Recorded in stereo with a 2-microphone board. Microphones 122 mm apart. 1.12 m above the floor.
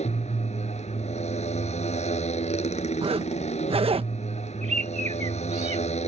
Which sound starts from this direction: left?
A motorcycle, at 0.0 s.